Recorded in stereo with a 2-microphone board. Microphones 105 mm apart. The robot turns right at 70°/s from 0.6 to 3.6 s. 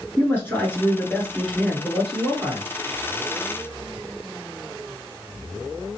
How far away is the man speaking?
About 1.7 m.